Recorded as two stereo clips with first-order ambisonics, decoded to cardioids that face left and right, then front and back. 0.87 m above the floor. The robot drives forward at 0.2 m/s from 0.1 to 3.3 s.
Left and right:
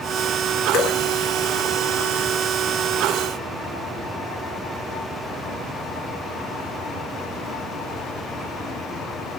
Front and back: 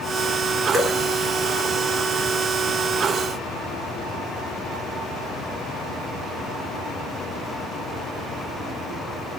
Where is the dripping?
110° left, 0.8 m; by 1.0 s 115° left, 0.8 m.